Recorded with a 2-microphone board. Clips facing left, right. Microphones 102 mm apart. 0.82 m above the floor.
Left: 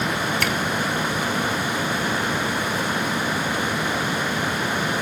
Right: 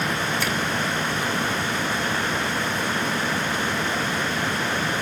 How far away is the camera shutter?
About 5.5 m.